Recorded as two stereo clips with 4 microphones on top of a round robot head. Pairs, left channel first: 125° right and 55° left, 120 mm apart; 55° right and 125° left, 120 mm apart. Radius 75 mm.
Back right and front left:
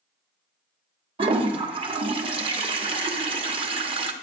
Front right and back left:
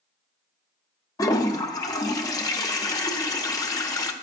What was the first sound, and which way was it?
A toilet flushing, 10° left.